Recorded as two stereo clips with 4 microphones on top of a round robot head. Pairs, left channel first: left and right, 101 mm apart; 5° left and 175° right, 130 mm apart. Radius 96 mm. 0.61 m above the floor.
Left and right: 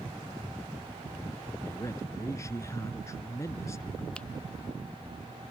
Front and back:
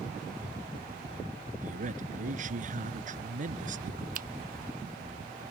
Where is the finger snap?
175° left.